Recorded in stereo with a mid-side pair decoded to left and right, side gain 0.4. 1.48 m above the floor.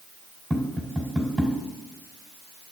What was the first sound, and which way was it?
Tapping, 10° right.